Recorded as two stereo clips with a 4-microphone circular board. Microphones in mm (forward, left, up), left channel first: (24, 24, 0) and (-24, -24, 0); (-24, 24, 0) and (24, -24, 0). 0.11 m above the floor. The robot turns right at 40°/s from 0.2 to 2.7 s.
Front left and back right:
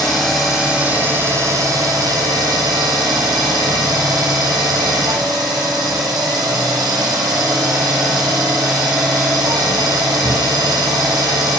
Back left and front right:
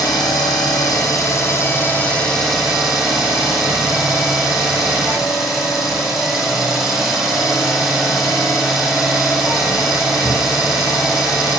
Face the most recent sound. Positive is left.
turn(degrees=-125)